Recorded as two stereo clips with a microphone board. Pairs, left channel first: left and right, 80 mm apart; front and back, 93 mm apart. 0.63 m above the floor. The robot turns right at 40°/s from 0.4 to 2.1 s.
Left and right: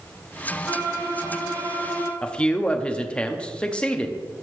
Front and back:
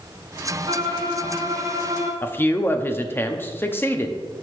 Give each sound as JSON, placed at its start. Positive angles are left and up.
{"t": 0.7, "sound": "a violin", "azimuth_deg": -160, "distance_m": 2.0}
{"t": 2.2, "sound": "a man speaking", "azimuth_deg": 30, "distance_m": 0.6}